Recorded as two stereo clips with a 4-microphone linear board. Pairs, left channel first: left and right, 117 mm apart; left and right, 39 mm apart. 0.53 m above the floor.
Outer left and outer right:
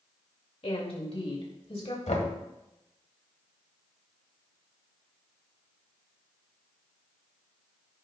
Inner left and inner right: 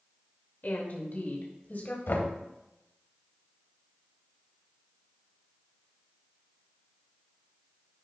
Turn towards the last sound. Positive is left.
turn(degrees=75)  # may be behind; listen again after turning